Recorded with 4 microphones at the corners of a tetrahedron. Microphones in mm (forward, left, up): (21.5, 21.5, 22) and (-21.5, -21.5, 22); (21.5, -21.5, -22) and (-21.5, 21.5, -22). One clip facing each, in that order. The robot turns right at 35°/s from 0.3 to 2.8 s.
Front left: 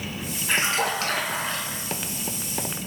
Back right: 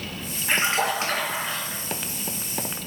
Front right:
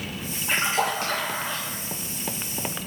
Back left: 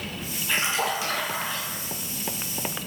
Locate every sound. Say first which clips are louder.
0.5 s a splash: back right 1 dB, front right 2 dB; 90° right, 1.0 m; by 1.8 s 45° right, 1.0 m